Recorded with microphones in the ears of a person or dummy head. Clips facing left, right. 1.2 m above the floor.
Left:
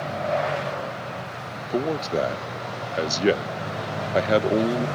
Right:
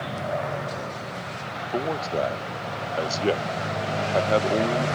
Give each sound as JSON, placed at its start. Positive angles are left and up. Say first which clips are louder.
{"t": 1.7, "sound": "a man speaking", "louder": "left 3 dB", "side_deg": 20}